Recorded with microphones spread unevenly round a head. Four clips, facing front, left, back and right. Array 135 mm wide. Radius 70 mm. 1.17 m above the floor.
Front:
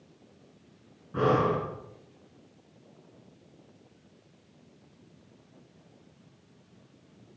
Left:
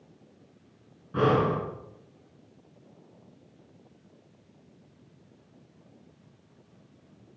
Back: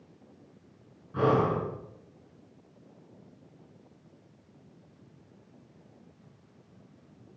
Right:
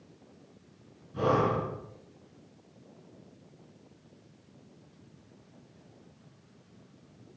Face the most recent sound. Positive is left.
turn(degrees=60)